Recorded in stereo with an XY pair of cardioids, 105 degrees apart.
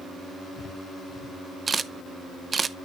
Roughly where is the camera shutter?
Ahead right.